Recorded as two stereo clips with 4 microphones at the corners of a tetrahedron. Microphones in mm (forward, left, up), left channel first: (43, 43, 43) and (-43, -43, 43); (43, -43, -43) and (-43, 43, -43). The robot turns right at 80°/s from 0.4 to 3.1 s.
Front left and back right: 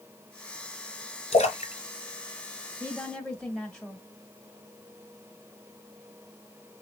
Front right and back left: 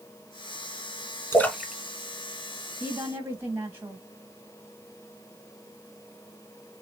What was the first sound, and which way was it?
A splash, 20° left.